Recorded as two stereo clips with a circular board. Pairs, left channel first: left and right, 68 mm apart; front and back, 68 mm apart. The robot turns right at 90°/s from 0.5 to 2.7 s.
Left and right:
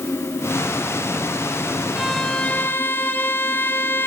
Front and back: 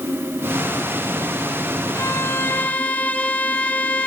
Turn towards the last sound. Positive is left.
turn(degrees=55)